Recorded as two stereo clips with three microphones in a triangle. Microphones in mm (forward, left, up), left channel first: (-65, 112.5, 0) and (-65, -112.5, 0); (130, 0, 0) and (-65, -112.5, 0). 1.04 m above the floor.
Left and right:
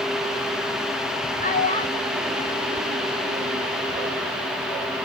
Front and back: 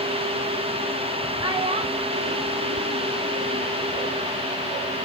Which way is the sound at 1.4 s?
140° left.